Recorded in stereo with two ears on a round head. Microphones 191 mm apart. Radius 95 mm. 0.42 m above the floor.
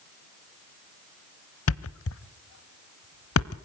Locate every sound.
1.7 s a thud: 70° left (ahead or behind), 0.8 m